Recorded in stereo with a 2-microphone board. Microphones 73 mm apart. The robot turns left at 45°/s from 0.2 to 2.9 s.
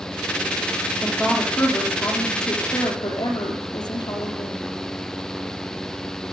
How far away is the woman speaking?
About 6 m.